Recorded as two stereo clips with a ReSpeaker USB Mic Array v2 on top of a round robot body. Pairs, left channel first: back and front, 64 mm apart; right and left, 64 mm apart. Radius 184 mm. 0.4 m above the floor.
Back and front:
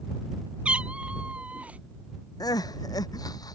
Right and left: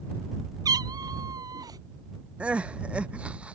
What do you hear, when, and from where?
0.7 s a cat meowing: 75° left; by 1.8 s 70° left
2.4 s crying: 160° left